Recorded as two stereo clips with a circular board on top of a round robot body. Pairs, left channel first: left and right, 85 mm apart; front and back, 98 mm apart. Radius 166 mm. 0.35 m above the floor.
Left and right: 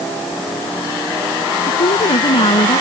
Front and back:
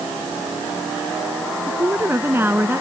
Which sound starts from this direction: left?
A woman speaking, at 1.7 s.